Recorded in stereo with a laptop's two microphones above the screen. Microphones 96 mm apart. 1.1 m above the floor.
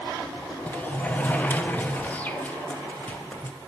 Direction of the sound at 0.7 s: 20° left (ahead or behind).